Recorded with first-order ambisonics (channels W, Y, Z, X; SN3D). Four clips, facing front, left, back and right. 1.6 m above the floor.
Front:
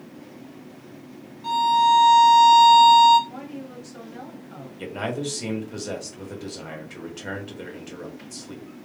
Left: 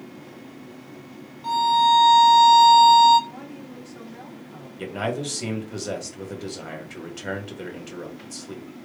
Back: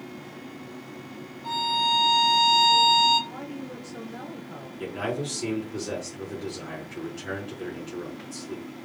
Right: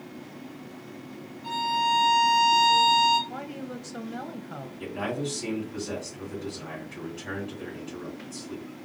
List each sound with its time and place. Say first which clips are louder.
1.4 s a violin: left 7 dB, front 6 dB; 50° left, 2 m
3.3 s a woman speaking: right 3 dB, even; 90° right, 1.0 m
4.8 s a man speaking: left 4 dB, front 1 dB; 60° left, 2 m